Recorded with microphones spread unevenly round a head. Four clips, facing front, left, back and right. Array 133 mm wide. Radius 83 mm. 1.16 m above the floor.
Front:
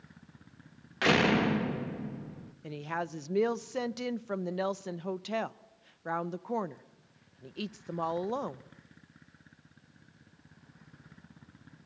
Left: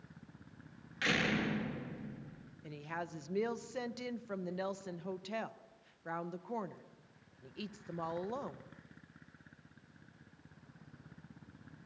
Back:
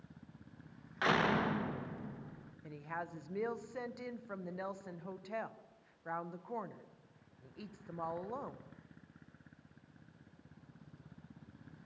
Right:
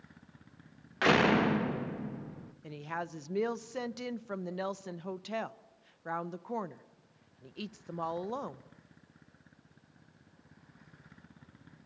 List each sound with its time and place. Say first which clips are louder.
1.0 s a door slam: right 9 dB, front 6 dB; 55° right, 1.1 m
2.6 s a woman speaking: right 4 dB, front 8 dB; 10° right, 1.0 m